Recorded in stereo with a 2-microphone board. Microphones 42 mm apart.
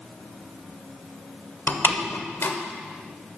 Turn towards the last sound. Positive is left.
turn(degrees=65)  # may be behind; listen again after turning